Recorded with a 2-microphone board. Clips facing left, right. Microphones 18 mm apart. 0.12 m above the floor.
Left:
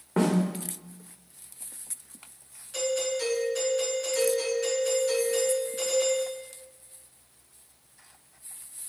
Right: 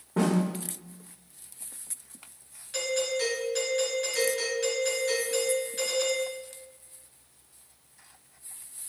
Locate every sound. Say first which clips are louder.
0.2 s a snare drum: left 1 dB; 80° left, 1.6 m
2.7 s a doorbell: even; 15° right (ahead or behind), 1.8 m